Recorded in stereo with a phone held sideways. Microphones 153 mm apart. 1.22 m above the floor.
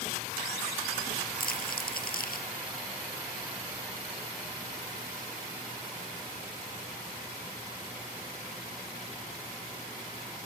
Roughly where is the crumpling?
Left.